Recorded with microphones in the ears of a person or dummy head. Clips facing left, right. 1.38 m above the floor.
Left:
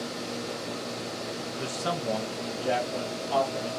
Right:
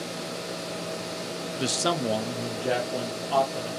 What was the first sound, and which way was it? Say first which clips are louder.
A man speaking: right 6 dB; 50° right (ahead or behind).